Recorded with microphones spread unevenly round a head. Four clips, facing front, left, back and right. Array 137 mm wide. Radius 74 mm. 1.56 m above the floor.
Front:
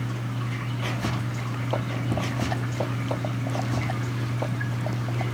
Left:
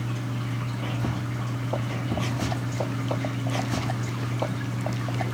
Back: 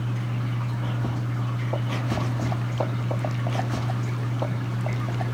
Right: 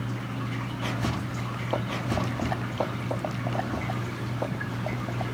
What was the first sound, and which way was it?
Only background noise.